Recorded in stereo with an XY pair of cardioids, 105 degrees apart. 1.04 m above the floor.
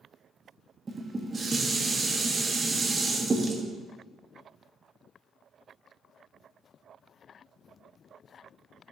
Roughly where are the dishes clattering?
Ahead right.